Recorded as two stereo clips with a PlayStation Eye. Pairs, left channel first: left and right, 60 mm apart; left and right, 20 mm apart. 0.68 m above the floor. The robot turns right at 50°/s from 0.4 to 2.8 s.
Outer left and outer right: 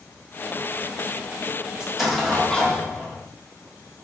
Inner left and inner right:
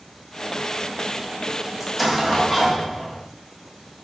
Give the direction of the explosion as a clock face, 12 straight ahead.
12 o'clock.